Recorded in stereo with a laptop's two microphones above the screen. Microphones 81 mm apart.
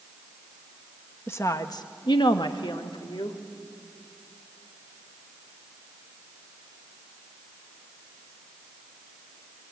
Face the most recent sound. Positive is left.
turn(degrees=65)  # may be behind; listen again after turning